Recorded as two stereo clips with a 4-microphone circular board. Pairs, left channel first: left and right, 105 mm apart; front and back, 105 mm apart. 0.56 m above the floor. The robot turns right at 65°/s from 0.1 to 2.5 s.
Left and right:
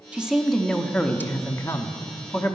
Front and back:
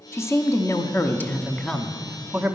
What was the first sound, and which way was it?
A woman speaking, 25° right.